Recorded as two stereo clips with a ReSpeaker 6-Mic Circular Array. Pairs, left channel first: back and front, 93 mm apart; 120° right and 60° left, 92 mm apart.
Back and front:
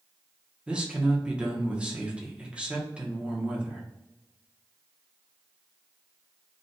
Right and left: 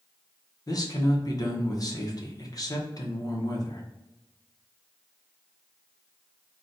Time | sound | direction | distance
0.7 | a man speaking | 75° right | 0.9 m